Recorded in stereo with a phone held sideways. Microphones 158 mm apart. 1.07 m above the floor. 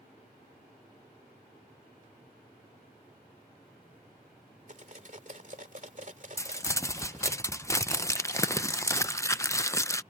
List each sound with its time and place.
4.7 s cutlery clinking: 50° right (ahead or behind)
6.4 s crumpling: 20° left (ahead or behind)